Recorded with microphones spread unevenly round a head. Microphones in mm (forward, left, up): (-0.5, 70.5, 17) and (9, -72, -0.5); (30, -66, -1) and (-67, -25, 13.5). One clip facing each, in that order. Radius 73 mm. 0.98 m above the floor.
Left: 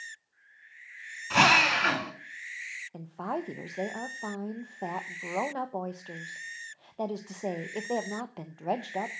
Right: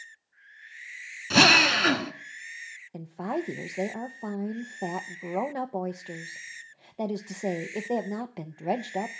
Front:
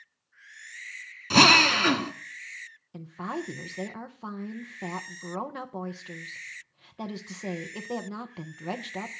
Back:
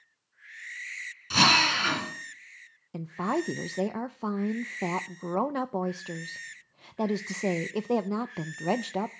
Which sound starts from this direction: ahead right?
A drill, at 1.3 s.